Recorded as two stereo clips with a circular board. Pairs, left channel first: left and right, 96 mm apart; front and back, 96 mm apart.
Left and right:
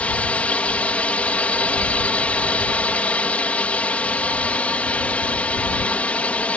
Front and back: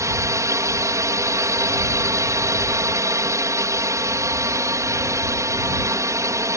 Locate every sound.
0.0 s a drone: 155° left